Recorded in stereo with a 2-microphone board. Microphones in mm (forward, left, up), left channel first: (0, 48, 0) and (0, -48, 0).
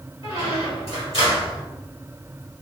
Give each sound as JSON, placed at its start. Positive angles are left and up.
{"t": 0.2, "sound": "a squeak", "side_deg": 75, "distance_m": 1.6}